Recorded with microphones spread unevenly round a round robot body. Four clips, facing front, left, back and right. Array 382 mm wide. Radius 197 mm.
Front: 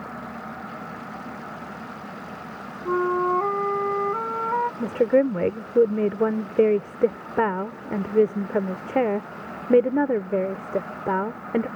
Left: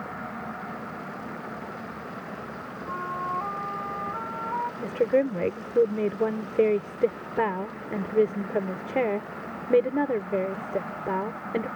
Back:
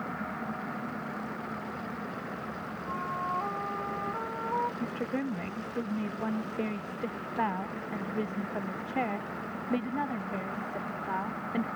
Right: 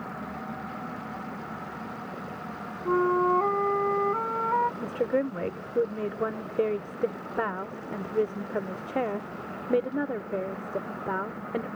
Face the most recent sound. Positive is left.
turn(degrees=15)